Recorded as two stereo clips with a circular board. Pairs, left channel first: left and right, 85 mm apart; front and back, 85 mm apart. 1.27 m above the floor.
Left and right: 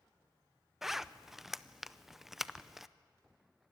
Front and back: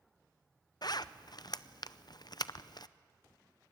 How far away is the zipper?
About 0.5 m.